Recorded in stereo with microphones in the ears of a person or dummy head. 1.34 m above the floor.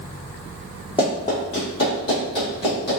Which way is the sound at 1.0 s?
25° left (ahead or behind).